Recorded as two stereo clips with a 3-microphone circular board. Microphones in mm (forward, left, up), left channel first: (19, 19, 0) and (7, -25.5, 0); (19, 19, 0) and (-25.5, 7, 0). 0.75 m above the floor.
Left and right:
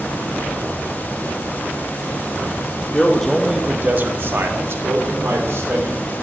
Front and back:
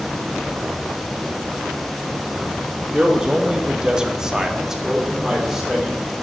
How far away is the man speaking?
About 1.1 m.